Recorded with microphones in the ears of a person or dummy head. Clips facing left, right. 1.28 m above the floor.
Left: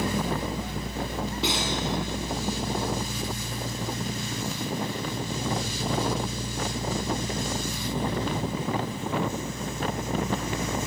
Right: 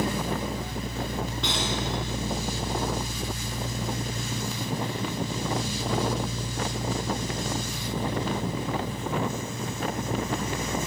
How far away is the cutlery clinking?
About 6 m.